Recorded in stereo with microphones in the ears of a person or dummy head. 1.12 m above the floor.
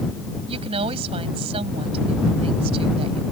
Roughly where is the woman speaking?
Right.